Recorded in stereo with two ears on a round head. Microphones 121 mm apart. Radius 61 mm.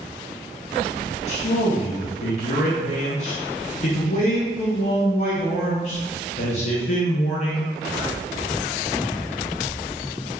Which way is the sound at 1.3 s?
55° left (ahead or behind).